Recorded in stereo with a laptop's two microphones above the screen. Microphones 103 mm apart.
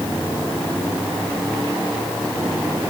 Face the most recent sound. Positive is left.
No sound to turn to.